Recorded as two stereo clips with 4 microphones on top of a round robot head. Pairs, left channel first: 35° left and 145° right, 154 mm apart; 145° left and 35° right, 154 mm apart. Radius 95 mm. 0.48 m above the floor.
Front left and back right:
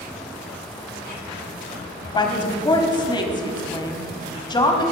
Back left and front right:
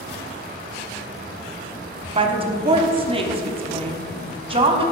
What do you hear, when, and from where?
2.1 s a woman speaking: 10° right, 1.2 m